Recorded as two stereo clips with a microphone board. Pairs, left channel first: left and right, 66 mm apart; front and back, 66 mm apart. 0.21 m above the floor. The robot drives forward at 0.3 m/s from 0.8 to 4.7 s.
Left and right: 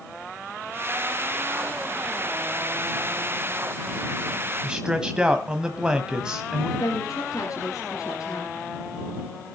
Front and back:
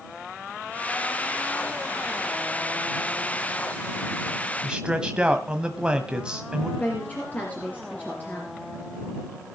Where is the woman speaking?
60° left, 3 m.